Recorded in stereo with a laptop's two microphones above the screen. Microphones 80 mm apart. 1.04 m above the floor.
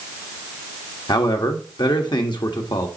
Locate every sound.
1.1 s a man speaking: 70° left (ahead or behind), 1.3 m